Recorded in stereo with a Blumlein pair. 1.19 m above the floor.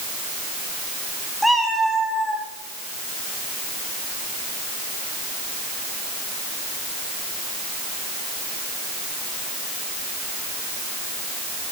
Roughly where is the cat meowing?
Ahead.